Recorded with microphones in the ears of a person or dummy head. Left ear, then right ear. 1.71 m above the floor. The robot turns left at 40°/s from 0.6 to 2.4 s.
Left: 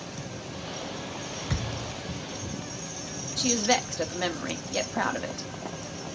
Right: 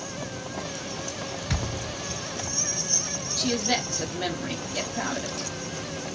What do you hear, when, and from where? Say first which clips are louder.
1.5 s a thud: right 2 dB; 10° right (ahead or behind), 1.8 m; by 1.9 s 15° right (ahead or behind), 1.8 m
3.4 s a woman speaking: left 2 dB; 30° left (ahead or behind), 1.0 m